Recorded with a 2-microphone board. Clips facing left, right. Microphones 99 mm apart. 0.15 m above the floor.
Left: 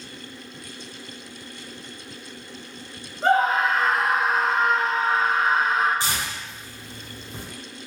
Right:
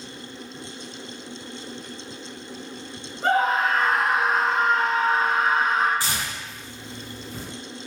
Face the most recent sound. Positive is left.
turn(degrees=25)  # may be behind; listen again after turning